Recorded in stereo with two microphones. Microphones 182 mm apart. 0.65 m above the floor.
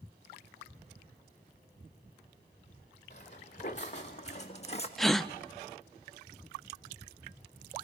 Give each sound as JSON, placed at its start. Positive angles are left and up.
{"t": 3.1, "sound": "footsteps", "side_deg": 40, "distance_m": 3.0}
{"t": 5.0, "sound": "a gasp", "side_deg": 0, "distance_m": 0.7}